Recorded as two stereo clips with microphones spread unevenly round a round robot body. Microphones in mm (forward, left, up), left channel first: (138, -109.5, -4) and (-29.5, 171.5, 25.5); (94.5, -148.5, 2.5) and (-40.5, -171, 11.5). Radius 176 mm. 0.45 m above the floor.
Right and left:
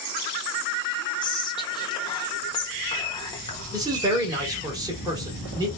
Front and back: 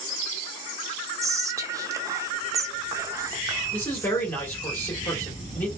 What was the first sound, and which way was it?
Whispering, 115° right.